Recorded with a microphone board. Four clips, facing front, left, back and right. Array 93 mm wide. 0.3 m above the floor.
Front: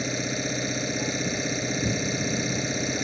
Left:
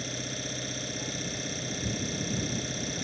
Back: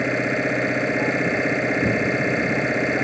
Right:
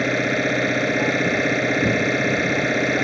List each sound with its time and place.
0.0 s an engine running: 125° right